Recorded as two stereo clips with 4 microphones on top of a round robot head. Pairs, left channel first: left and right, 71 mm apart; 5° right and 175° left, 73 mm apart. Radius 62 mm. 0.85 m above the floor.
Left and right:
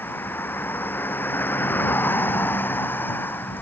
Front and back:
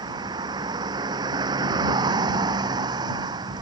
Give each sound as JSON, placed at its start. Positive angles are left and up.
{"t": 0.0, "sound": "a vehicle", "azimuth_deg": 150}